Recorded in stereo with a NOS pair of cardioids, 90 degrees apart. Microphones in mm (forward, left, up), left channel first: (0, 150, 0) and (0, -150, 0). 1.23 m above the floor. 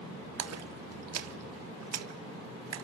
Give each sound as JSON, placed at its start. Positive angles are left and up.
{"t": 0.4, "sound": "a splash", "azimuth_deg": -55, "distance_m": 1.7}